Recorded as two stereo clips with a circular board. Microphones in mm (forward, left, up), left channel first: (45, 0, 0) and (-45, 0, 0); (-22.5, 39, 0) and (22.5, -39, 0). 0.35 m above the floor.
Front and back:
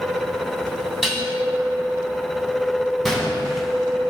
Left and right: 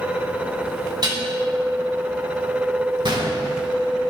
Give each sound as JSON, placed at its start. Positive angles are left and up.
{"t": 1.0, "sound": "dishes clattering", "azimuth_deg": -95, "distance_m": 1.6}
{"t": 3.0, "sound": "a gunshot", "azimuth_deg": -90, "distance_m": 1.6}